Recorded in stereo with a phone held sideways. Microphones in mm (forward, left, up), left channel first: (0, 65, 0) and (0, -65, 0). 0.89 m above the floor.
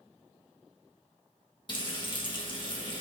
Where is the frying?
40° left (ahead or behind), 1.4 m.